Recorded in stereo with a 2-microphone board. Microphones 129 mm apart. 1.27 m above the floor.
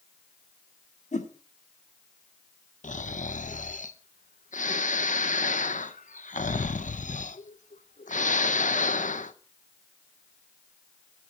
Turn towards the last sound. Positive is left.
turn(degrees=80)